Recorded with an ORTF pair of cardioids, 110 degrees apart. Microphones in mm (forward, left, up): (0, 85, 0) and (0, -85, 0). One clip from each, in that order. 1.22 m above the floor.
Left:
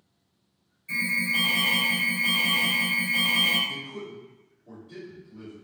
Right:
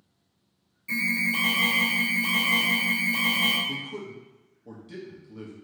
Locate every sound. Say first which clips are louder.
0.9 s an alarm: even; 50° right, 1.6 m
3.7 s a man speaking: right 1 dB; 65° right, 1.1 m